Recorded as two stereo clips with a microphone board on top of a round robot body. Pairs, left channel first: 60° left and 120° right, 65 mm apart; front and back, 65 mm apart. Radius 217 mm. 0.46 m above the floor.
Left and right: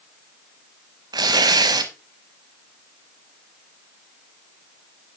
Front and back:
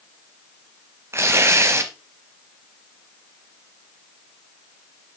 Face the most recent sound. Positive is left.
turn(degrees=-130)